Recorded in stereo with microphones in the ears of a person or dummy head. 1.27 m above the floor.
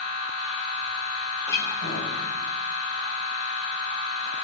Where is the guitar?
20° left (ahead or behind), 1.4 m.